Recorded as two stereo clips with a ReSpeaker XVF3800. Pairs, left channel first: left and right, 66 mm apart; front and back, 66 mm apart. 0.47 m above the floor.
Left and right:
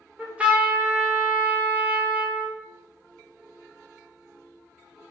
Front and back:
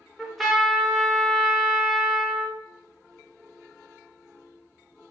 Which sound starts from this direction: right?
A trumpet, at 0.2 s.